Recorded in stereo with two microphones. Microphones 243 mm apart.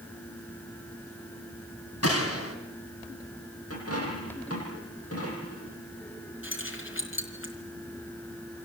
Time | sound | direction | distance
2.0 | a gunshot | 75° left (ahead or behind) | 4 m
3.7 | a dropped coin | 70° left (ahead or behind) | 8.5 m
6.4 | keys jangling | 55° left (ahead or behind) | 4 m